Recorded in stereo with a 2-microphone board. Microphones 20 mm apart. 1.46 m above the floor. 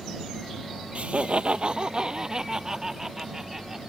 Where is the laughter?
80° right; by 3.8 s 20° right (ahead or behind).